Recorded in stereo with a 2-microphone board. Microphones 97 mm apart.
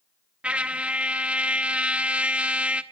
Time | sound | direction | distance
0.4 | a trumpet | 10° right (ahead or behind) | 1.1 m